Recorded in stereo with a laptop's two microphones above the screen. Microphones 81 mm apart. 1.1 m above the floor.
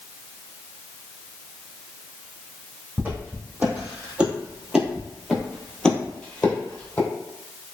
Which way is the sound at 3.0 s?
20° right (ahead or behind).